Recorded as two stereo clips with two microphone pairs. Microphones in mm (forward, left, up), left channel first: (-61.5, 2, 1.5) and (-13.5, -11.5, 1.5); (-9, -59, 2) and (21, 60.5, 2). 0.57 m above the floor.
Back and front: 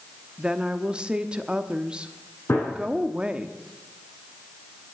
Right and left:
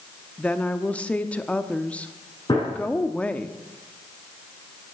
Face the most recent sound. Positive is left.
turn(degrees=-160)